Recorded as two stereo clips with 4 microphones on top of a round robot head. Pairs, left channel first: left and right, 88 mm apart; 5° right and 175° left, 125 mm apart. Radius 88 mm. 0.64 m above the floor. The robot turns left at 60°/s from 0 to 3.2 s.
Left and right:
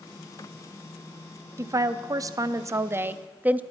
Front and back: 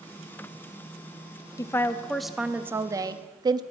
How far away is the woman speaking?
About 0.6 m.